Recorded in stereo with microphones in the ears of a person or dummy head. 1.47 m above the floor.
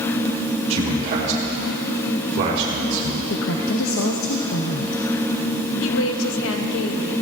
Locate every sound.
0.7 s a man speaking: 35° right (ahead or behind), 1.4 m; by 3.2 s 50° right (ahead or behind), 3.5 m
3.3 s a woman speaking: 70° left (ahead or behind), 0.9 m
5.8 s a woman speaking: 80° left, 1.0 m